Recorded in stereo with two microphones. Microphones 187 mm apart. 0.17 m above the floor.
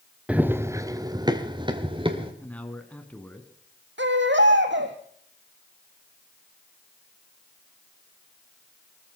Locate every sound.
0.3 s running footsteps: 5° right (ahead or behind), 1.2 m; by 2.3 s 30° right (ahead or behind), 3 m
2.4 s a man speaking: 5° left (ahead or behind), 2.0 m
4.0 s a baby crying: 85° right, 2.5 m